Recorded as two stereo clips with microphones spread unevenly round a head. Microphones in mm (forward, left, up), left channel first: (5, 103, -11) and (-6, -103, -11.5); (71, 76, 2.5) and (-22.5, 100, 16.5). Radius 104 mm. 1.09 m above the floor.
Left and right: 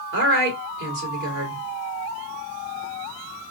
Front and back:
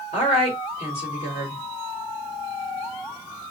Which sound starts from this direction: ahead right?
A woman speaking, at 0.1 s.